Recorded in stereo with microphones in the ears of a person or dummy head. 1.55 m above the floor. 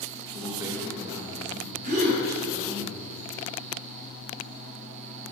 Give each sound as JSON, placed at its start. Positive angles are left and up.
{"t": 0.3, "sound": "a man speaking", "side_deg": -15, "distance_m": 1.6}
{"t": 1.8, "sound": "a gasp", "side_deg": -45, "distance_m": 4.0}